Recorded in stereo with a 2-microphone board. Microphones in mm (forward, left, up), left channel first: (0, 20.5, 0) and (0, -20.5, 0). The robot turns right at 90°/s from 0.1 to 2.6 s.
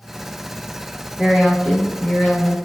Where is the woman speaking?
25° right, 1.3 m; by 2.6 s 100° left, 1.3 m.